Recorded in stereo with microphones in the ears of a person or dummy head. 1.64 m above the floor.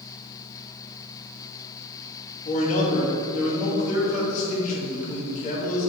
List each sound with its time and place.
2.5 s a man speaking: 45° left (ahead or behind), 2.5 m